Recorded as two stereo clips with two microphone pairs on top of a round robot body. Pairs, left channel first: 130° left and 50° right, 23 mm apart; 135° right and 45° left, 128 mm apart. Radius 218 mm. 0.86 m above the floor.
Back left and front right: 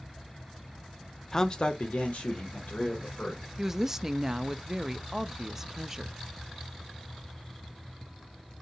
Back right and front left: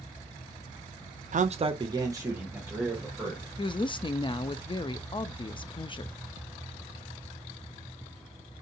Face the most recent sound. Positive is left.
turn(degrees=-115)